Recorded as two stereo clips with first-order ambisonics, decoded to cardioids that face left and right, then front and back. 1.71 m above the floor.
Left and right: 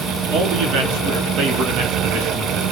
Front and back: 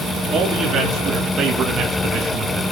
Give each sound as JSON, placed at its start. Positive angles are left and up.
{"t": 0.3, "sound": "a man speaking", "azimuth_deg": -120, "distance_m": 5.0}